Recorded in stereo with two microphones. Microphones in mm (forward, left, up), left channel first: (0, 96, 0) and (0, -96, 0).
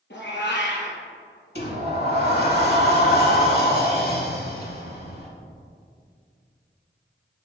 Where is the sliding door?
60° left (ahead or behind), 1.3 m.